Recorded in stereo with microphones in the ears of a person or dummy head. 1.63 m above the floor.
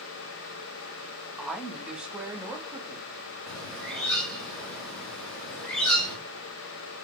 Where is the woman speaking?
5° left (ahead or behind), 1.9 m; by 4.3 s 15° right (ahead or behind), 4 m.